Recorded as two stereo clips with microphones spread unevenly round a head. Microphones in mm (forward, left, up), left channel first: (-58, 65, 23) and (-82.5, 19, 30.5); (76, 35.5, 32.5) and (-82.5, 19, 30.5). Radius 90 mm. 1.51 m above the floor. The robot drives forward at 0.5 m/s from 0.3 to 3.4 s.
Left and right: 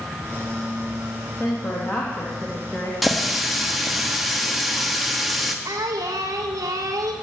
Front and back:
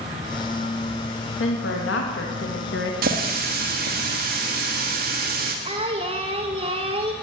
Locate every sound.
1.4 s a woman speaking: 15° right, 2.5 m; by 2.9 s 20° right, 1.9 m
3.0 s a running tap: 155° left, 1.8 m
5.7 s singing: 110° right, 1.4 m